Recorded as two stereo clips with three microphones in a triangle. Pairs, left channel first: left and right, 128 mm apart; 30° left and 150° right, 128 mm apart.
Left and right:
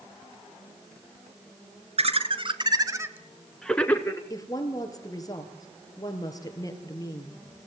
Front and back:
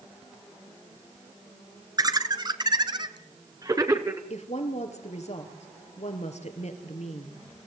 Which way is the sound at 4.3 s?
35° left.